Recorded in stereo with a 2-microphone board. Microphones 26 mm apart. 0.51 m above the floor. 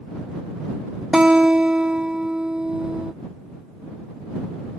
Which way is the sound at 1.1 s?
40° right (ahead or behind).